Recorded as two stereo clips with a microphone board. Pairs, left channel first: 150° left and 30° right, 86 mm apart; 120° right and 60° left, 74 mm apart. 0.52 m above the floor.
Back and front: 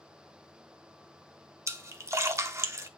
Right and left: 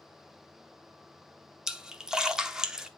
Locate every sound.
1.7 s a splash: 15° right, 0.7 m